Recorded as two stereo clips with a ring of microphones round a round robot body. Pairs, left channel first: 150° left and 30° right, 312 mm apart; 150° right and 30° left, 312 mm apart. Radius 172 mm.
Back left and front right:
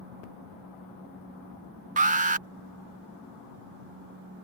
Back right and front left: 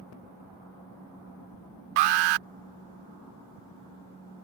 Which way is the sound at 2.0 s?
40° left.